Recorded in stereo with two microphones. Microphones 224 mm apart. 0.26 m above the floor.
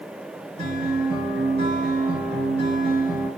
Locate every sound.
0.6 s a guitar: 50° right (ahead or behind), 1.9 m